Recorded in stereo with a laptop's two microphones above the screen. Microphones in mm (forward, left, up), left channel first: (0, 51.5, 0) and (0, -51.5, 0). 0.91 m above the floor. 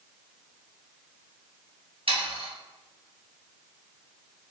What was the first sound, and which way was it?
Sawing, 65° right (ahead or behind).